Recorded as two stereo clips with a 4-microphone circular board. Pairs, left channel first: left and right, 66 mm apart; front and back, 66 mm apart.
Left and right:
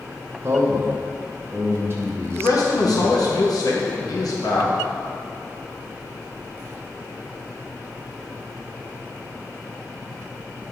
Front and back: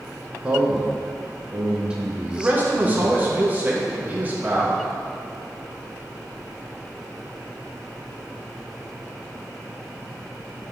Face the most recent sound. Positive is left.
turn(degrees=110)